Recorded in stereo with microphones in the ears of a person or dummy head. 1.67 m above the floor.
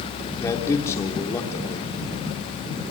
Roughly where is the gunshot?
I don't hear a gunshot.